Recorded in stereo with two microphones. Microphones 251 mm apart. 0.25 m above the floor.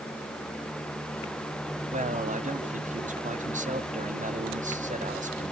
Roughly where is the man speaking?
Right.